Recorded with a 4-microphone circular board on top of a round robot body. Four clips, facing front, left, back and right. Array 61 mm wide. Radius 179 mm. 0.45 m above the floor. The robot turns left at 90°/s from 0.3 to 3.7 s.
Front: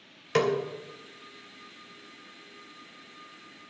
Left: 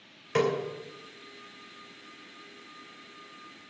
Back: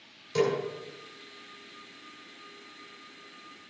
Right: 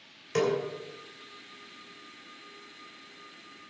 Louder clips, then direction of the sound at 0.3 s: Left 1 dB, front 1 dB; 20° left.